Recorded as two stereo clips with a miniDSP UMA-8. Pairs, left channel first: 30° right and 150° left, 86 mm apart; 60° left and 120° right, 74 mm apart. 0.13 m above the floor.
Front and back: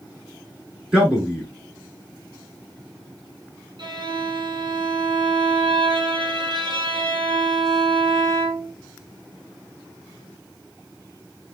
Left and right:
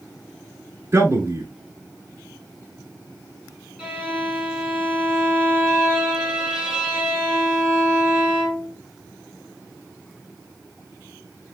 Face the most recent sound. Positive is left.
turn(degrees=155)